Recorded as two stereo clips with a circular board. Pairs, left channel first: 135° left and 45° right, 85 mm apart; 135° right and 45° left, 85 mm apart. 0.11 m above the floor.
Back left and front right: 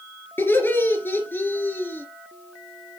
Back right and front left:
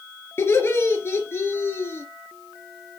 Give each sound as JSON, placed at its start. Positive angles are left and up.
{"t": 0.4, "sound": "laughter", "azimuth_deg": -175, "distance_m": 2.0}